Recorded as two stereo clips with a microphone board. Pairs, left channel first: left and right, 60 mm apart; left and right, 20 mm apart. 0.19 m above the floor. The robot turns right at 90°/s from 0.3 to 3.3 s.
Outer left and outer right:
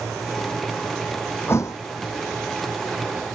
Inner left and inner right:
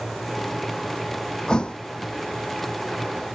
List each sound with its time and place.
1.5 s a thud: 40° left (ahead or behind); by 1.8 s 70° left (ahead or behind)